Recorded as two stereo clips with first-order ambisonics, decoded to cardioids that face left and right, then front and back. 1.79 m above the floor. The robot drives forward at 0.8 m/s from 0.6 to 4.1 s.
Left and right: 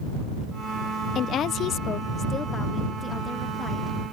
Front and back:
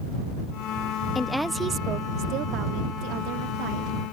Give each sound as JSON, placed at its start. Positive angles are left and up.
{"t": 1.1, "sound": "a woman speaking", "azimuth_deg": 65}